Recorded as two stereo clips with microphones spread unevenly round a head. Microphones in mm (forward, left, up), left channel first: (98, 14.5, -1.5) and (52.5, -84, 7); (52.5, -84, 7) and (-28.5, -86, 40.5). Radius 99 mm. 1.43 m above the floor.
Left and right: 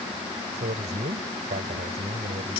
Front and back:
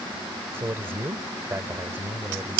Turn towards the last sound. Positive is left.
turn(degrees=-120)